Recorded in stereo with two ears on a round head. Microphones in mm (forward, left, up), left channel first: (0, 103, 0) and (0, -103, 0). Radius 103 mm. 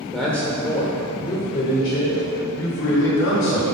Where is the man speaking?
Centre (ahead or behind), 1.2 m; by 3.6 s 60° left (ahead or behind), 2.5 m.